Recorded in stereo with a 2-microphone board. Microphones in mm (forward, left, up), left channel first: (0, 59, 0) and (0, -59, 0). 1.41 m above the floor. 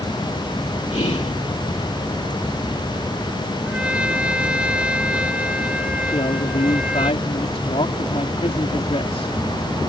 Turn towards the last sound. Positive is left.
turn(degrees=60)  # may be behind; listen again after turning